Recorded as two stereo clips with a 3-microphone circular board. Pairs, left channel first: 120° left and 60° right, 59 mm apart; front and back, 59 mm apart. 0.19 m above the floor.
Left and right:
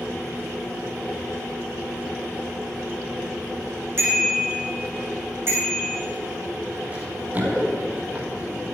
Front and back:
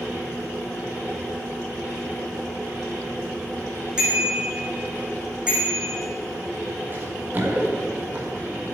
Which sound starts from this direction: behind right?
Running footsteps, at 6.9 s.